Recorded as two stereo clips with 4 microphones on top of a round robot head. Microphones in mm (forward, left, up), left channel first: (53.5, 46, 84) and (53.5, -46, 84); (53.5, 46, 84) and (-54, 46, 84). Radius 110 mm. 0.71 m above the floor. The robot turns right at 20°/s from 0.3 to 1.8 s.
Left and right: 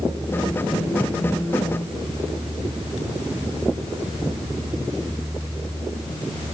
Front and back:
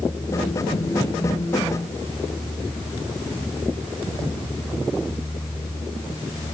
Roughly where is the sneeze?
No sneeze in this recording.